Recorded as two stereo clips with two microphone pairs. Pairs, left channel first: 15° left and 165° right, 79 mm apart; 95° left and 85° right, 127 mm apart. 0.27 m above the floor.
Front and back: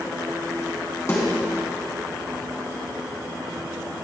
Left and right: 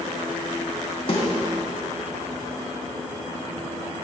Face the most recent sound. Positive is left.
turn(degrees=60)